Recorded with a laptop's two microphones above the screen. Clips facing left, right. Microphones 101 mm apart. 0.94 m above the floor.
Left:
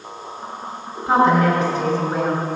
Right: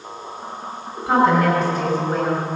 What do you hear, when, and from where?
1.1 s a woman speaking: centre (ahead or behind), 5.5 m